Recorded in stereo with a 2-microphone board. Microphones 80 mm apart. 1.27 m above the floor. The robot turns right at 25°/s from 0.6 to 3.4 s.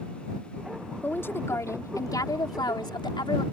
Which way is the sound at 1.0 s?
25° left.